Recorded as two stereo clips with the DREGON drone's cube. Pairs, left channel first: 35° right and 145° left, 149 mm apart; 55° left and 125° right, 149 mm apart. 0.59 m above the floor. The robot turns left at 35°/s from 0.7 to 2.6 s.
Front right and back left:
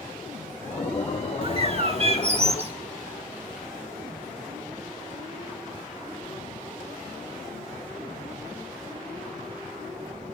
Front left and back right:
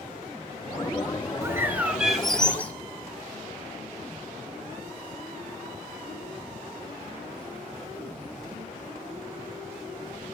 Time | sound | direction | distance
1.4 | a bird | 175° left | 1.3 m